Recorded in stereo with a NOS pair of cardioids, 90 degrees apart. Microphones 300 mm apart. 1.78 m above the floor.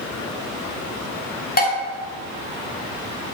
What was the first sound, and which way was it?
Dishes clattering, 35° left.